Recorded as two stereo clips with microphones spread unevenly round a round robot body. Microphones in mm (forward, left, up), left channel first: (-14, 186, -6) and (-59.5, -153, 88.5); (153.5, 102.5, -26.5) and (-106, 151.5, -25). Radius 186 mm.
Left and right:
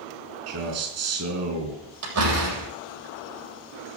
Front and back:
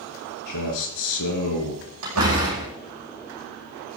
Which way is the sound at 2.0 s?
140° right.